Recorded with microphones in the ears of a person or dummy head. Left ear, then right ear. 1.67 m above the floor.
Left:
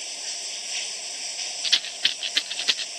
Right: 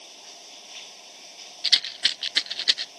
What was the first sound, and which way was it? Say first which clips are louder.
Running water: left 11 dB; 80° left.